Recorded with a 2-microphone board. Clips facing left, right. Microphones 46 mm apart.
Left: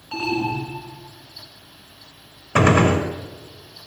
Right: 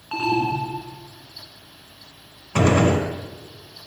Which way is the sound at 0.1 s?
20° right (ahead or behind).